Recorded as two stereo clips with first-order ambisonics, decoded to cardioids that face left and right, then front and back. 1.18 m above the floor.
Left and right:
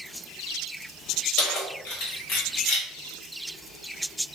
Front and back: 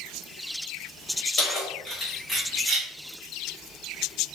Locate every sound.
1.4 s keys jangling: 55° left, 1.4 m; by 2.9 s 115° left, 0.9 m